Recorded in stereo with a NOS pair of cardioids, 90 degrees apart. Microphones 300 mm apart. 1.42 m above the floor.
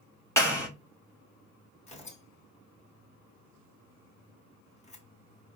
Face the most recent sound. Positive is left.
turn(degrees=20)